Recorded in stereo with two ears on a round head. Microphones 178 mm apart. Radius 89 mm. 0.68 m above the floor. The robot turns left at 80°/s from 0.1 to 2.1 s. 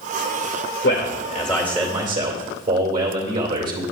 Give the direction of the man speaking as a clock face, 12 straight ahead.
10 o'clock.